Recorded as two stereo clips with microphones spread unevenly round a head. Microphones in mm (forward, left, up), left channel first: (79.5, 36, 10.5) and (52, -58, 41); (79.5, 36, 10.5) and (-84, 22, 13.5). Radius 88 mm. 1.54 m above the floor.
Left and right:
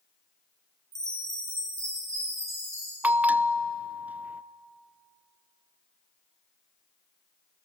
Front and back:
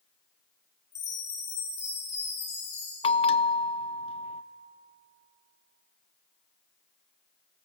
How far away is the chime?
About 9 m.